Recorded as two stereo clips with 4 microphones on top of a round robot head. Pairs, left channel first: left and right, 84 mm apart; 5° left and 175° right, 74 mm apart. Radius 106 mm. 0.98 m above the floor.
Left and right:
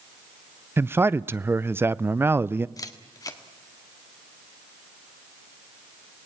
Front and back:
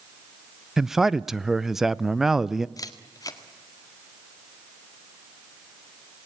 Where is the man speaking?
100° right, 0.6 m.